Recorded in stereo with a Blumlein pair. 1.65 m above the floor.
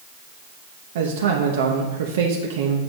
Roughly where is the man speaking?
Ahead right.